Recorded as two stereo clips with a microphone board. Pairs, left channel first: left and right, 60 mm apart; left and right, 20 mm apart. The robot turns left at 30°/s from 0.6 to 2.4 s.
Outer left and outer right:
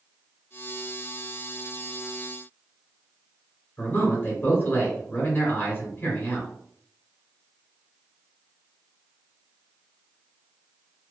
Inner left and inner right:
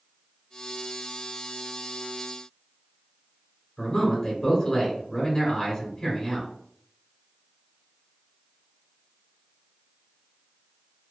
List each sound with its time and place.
3.8 s a man speaking: 30° left (ahead or behind), 1.5 m